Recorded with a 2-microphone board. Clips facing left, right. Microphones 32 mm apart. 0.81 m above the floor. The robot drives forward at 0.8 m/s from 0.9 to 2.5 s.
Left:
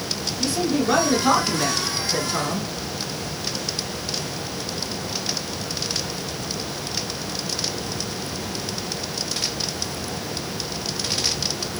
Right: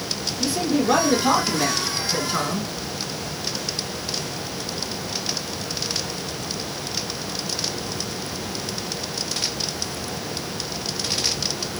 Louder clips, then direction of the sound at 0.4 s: Even; 15° right (ahead or behind).